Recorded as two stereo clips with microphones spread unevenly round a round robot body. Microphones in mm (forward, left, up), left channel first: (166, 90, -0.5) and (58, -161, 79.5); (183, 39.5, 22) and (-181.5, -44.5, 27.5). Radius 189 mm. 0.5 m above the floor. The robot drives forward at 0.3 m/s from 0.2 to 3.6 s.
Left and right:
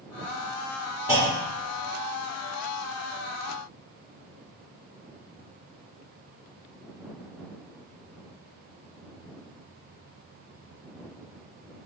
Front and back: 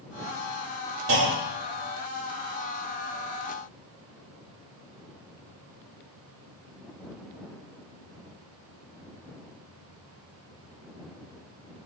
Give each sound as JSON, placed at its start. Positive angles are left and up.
{"t": 1.1, "sound": "a clunk", "azimuth_deg": 155, "distance_m": 2.5}